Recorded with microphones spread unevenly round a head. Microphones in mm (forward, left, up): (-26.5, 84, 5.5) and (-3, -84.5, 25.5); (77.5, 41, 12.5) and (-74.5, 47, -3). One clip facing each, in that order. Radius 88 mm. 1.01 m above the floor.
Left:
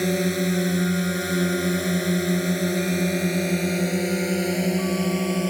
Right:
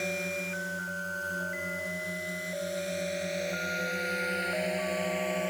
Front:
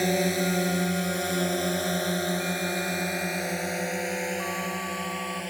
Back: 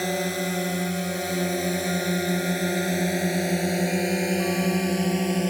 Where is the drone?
75° left; by 5.5 s 140° left.